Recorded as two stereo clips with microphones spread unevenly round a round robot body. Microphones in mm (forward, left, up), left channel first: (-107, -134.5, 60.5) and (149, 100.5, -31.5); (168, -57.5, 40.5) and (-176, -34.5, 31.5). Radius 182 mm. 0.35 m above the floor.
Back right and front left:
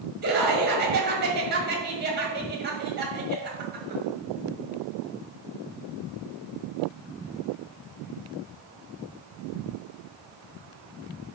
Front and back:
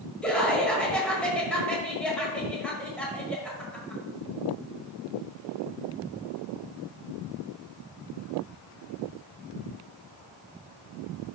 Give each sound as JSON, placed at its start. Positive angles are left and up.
{"t": 0.2, "sound": "laughter", "azimuth_deg": 85, "distance_m": 1.5}